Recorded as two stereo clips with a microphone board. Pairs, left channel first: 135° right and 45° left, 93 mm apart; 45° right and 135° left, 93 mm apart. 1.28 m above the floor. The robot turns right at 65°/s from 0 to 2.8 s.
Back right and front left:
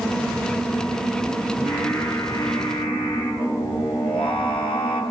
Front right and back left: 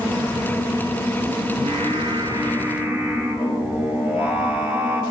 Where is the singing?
130° left, 6.5 m; by 5.0 s 150° right, 6.5 m.